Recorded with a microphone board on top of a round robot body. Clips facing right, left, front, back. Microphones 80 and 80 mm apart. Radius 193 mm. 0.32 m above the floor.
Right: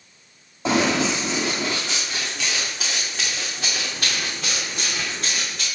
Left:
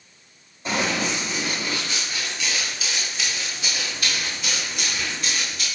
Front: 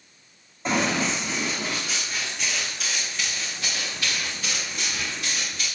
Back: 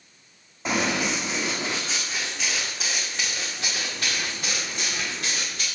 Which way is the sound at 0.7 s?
95° right.